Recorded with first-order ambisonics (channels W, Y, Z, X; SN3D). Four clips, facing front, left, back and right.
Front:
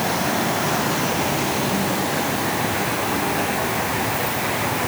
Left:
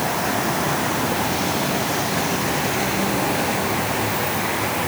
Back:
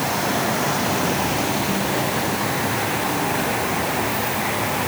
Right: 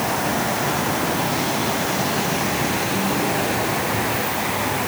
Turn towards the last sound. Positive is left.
No sound to turn to.